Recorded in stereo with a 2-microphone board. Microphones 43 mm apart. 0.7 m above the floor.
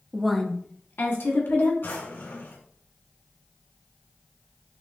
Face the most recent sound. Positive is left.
turn(degrees=60)  # may be behind; listen again after turning